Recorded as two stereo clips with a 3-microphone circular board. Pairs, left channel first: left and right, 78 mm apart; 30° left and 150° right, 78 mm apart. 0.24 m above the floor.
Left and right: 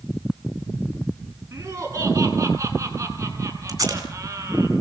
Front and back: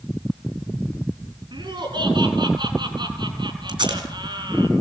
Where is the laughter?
140° right, 5.5 m.